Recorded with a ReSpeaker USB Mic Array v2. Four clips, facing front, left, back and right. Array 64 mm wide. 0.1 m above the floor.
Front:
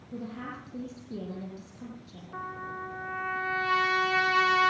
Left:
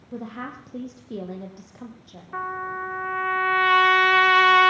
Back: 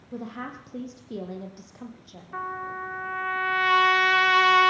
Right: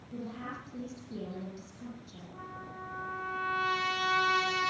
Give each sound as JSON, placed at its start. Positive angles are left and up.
{"t": 0.1, "sound": "a woman speaking", "azimuth_deg": 120, "distance_m": 3.5}
{"t": 2.3, "sound": "a trumpet", "azimuth_deg": 110, "distance_m": 2.5}